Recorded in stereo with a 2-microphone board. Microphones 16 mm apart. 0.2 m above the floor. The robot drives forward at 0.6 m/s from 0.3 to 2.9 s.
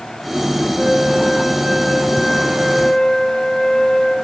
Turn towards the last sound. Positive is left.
turn(degrees=-5)  # may be behind; listen again after turning